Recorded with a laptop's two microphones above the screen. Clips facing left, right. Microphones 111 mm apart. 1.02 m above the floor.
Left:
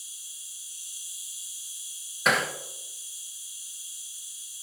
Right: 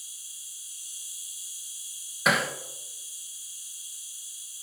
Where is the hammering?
Centre (ahead or behind), 0.8 m.